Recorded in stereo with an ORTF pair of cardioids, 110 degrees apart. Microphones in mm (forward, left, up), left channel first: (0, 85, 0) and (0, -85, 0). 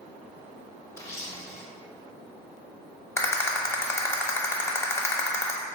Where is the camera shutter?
15° left, 0.7 m.